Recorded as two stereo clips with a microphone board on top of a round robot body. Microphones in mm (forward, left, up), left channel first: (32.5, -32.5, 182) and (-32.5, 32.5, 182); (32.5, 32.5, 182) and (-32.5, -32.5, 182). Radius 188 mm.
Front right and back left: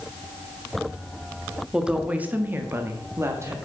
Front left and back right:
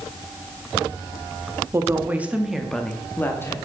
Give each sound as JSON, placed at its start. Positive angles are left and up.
{"t": 1.7, "sound": "a woman speaking", "azimuth_deg": -150, "distance_m": 1.0}